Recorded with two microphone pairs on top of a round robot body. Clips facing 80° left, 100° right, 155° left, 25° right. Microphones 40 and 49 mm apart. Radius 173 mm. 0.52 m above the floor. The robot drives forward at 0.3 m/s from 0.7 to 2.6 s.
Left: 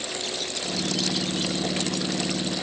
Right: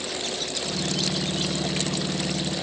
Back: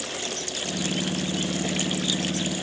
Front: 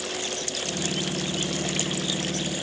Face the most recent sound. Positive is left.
No sound to turn to.